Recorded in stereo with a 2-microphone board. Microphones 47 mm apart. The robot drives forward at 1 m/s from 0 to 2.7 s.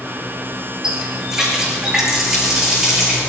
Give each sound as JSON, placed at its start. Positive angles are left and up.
{"t": 0.8, "sound": "a running tap", "side_deg": -15, "distance_m": 4.5}